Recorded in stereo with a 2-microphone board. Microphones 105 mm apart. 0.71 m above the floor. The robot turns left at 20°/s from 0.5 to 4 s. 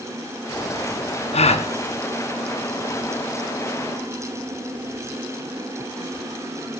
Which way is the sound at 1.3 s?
80° left.